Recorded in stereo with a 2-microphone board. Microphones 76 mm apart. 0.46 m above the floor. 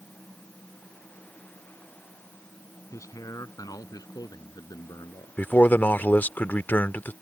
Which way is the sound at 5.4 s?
25° left (ahead or behind).